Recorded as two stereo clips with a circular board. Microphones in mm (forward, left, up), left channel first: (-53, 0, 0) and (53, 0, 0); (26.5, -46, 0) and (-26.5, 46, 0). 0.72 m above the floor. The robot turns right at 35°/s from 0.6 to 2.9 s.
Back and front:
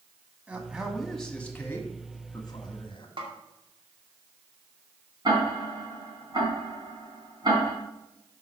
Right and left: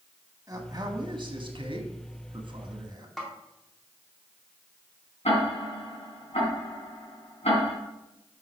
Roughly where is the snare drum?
Ahead left.